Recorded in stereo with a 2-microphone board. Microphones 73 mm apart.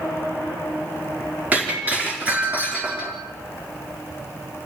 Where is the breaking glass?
20° right (ahead or behind), 4.5 m.